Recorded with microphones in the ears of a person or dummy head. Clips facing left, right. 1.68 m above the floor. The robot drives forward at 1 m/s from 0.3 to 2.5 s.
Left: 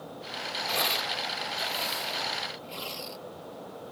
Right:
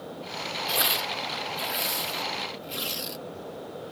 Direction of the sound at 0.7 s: 15° right (ahead or behind).